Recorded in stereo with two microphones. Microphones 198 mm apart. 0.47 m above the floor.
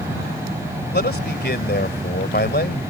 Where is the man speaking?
55° left (ahead or behind).